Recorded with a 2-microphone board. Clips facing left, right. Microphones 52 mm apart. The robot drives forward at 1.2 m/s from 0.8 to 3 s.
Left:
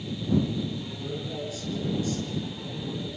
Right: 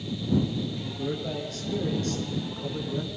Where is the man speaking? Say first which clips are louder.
Right 3 dB; 45° right (ahead or behind), 7.5 m; by 3.1 s 60° right (ahead or behind), 6 m.